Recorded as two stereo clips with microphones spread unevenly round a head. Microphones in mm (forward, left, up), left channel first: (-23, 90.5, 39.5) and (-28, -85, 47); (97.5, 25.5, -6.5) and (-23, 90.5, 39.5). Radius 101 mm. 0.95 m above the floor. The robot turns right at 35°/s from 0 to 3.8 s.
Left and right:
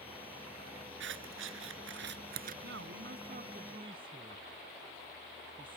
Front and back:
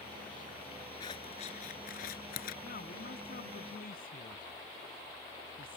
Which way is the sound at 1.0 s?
100° right.